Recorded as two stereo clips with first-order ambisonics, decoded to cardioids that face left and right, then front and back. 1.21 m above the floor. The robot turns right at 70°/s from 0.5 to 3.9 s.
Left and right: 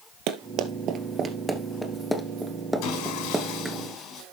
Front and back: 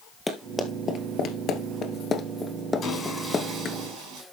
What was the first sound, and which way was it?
Running footsteps, 80° right.